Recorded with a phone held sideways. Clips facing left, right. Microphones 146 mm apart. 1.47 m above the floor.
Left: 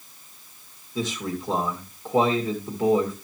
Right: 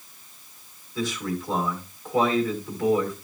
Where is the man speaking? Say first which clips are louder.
Even; 20° left (ahead or behind), 2.5 m.